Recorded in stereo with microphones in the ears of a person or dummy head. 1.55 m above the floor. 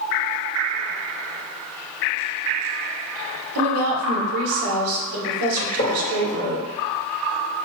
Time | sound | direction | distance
3.5 | a woman speaking | 75° right (ahead or behind) | 1.2 m
5.6 | a gunshot | 35° left (ahead or behind) | 1.3 m